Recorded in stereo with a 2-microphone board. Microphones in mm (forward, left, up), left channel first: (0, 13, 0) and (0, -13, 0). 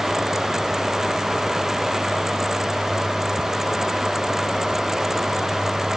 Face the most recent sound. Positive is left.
No sound to turn to.